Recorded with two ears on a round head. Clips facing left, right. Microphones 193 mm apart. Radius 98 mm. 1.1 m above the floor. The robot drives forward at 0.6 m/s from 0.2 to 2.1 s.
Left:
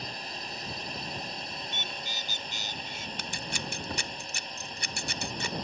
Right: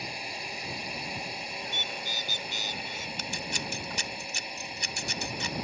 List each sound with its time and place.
0.0 s a drone: 10° right (ahead or behind)
1.6 s a bird: 40° right (ahead or behind); by 3.1 s 45° right (ahead or behind)
3.2 s scissors: 45° left (ahead or behind)